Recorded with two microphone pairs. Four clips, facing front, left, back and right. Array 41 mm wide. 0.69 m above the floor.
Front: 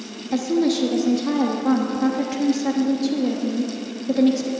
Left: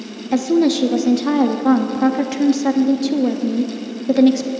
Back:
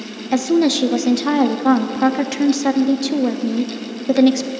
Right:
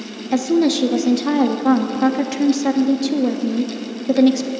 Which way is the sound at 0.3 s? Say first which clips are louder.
Left 1 dB, back 4 dB; 175° right.